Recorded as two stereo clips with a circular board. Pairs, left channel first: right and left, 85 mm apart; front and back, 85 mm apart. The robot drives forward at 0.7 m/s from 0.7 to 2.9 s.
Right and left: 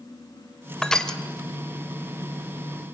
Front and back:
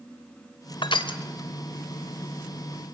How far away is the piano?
I don't hear a piano.